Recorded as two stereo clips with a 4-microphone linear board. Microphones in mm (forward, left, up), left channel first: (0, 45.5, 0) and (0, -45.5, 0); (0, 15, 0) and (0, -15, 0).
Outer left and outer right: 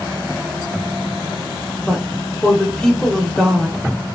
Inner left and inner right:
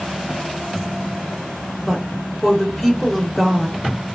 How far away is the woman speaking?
About 0.8 m.